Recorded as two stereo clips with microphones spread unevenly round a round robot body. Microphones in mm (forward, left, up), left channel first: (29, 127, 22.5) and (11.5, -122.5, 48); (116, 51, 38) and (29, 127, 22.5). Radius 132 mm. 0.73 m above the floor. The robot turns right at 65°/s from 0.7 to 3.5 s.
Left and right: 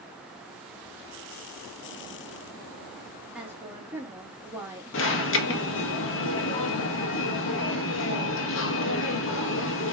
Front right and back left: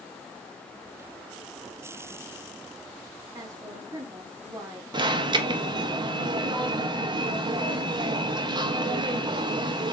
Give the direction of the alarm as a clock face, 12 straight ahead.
9 o'clock.